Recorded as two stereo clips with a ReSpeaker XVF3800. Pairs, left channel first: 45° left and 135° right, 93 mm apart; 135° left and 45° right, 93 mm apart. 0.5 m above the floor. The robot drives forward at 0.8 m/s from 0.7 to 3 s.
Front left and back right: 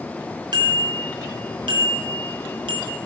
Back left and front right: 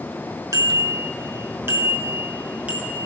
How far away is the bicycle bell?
About 4 m.